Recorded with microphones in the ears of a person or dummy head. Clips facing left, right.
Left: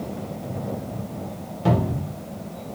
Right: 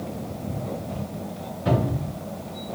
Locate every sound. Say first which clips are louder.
1.6 s a cupboard door: left 1 dB; 70° left (ahead or behind), 1.3 m